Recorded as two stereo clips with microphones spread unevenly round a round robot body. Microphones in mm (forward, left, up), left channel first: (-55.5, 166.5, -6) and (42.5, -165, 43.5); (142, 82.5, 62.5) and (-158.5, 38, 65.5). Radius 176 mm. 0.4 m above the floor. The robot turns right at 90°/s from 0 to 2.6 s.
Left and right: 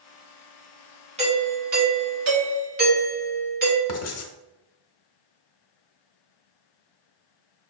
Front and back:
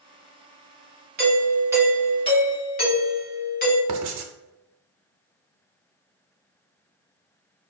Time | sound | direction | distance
1.2 | a doorbell | 145° right | 1.5 m
3.9 | writing | 155° left | 0.7 m